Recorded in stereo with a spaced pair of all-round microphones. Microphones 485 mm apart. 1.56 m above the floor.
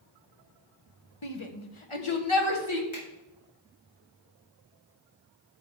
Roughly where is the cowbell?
I don't hear a cowbell.